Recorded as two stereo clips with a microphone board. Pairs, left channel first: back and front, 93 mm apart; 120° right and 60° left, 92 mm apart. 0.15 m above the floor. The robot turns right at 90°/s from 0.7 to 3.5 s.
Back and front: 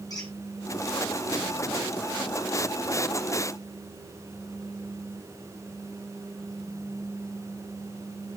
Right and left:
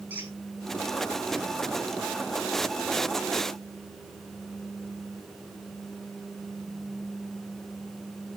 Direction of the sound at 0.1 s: 130° left.